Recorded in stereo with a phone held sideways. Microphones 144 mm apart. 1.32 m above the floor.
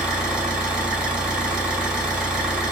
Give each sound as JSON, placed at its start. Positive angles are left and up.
{"t": 0.0, "sound": "an engine running", "side_deg": -5, "distance_m": 2.5}